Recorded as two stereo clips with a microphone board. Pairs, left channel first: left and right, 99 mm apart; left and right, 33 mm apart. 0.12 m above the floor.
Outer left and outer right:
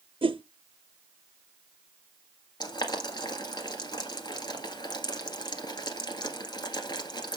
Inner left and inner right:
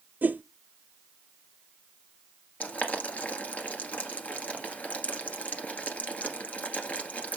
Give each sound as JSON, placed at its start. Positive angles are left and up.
{"t": 0.2, "sound": "a whoosh", "side_deg": -65, "distance_m": 0.6}
{"t": 2.6, "sound": "boiling", "side_deg": 45, "distance_m": 1.7}